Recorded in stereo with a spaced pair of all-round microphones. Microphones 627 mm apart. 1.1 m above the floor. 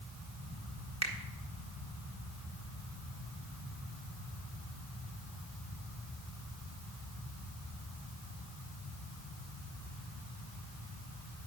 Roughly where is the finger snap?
Right.